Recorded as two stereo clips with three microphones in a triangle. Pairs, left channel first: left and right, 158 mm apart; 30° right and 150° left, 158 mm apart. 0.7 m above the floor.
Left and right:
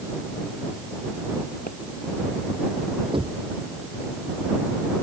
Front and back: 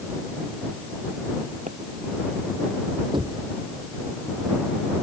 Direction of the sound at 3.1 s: 150° right.